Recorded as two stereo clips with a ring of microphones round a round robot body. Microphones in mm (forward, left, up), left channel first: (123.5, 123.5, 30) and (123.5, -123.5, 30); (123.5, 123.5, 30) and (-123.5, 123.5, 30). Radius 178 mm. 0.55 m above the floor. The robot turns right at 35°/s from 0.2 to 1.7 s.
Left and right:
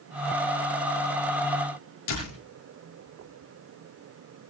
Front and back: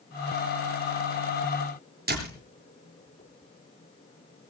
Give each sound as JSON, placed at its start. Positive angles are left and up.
{"t": 2.1, "sound": "a door slam", "azimuth_deg": 130, "distance_m": 7.0}